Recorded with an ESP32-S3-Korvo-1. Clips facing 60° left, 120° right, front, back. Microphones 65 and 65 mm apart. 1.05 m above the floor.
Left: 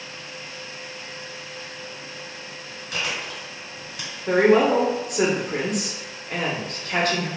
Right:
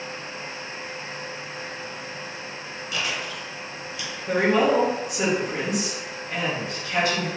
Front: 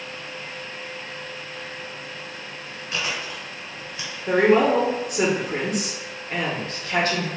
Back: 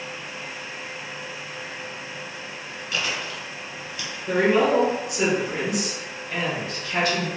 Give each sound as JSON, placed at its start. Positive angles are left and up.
{"t": 2.9, "sound": "chewing", "azimuth_deg": 50, "distance_m": 1.2}
{"t": 4.3, "sound": "a woman speaking", "azimuth_deg": 35, "distance_m": 0.9}